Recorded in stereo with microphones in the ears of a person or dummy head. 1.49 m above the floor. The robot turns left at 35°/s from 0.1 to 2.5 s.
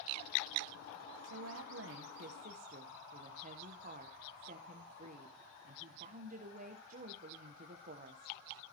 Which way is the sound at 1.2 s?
100° right.